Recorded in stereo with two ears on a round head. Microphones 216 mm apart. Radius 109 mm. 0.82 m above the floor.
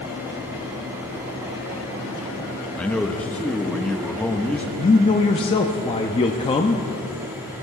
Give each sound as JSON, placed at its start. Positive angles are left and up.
{"t": 2.8, "sound": "a man speaking", "side_deg": 5, "distance_m": 1.1}
{"t": 4.8, "sound": "a man speaking", "side_deg": 20, "distance_m": 0.7}